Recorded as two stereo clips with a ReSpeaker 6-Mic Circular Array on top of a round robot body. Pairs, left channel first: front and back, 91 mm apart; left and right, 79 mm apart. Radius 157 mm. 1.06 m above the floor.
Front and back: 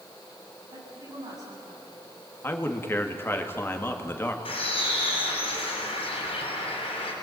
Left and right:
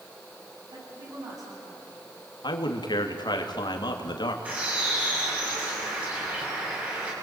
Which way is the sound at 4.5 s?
20° right.